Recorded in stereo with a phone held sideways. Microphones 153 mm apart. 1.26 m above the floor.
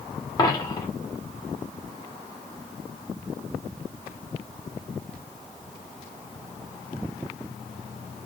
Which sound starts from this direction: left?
A dropped coin, at 0.4 s.